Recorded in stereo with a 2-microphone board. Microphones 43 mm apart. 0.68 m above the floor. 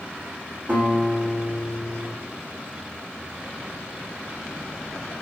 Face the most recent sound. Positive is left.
turn(degrees=-45)  # may be behind; listen again after turning